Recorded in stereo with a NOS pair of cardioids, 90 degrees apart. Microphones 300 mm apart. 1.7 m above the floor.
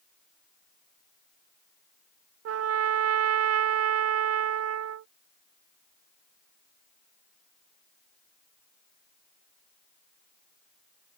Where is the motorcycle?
No motorcycle in this recording.